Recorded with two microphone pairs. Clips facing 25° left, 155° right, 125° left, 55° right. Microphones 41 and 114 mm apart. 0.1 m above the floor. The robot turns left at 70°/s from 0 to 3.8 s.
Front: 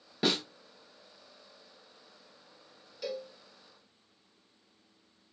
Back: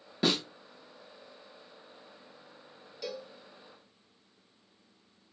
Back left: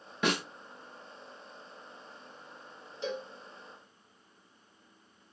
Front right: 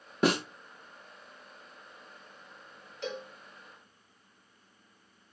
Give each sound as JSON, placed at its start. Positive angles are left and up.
{"t": 0.2, "sound": "a snare drum", "azimuth_deg": -55, "distance_m": 0.8}
{"t": 3.0, "sound": "a cowbell", "azimuth_deg": 105, "distance_m": 1.9}